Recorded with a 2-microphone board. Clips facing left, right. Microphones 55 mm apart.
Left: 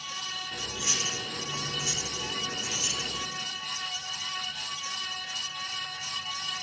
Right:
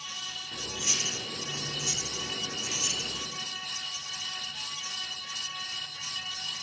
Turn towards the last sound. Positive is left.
turn(degrees=35)  # may be behind; listen again after turning